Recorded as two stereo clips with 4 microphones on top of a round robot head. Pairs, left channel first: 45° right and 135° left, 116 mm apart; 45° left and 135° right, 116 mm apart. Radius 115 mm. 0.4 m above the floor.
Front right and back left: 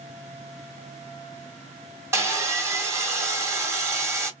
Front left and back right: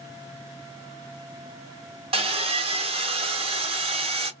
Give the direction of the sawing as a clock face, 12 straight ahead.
5 o'clock.